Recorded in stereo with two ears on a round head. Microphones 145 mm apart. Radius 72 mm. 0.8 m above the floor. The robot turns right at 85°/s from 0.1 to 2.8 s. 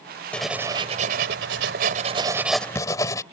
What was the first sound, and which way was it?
Writing, 170° left.